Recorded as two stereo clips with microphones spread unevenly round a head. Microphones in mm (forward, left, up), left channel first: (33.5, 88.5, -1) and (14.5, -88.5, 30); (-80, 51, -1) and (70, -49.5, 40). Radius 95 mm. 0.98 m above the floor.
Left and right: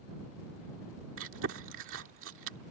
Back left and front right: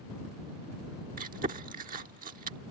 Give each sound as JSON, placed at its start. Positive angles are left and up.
{"t": 1.2, "sound": "chewing", "azimuth_deg": -85}